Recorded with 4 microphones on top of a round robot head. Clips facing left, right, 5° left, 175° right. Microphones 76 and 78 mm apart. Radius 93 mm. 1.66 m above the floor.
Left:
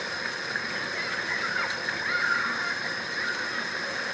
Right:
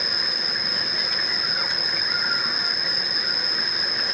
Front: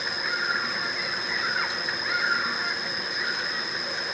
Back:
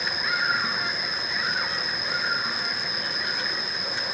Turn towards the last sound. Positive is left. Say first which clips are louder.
# right 1 dB, back 2 dB
turn(degrees=-105)